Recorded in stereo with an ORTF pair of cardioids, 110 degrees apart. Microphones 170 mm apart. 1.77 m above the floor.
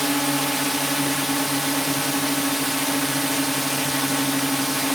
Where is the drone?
Straight ahead.